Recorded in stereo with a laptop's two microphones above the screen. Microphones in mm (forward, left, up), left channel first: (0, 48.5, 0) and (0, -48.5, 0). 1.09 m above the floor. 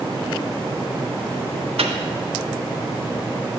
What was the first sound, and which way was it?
A microwave, 85° right.